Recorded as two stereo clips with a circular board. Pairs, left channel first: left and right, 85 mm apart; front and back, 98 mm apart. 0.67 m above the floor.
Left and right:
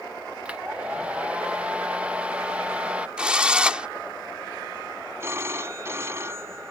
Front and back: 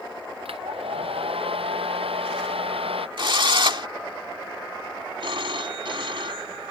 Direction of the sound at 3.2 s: 165° right.